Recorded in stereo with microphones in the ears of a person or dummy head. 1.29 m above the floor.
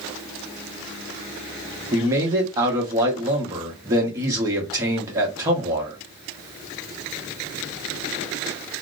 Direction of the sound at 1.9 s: 15° right (ahead or behind).